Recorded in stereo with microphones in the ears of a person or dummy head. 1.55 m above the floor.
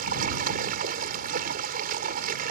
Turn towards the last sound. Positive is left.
turn(degrees=-50)  # may be behind; listen again after turning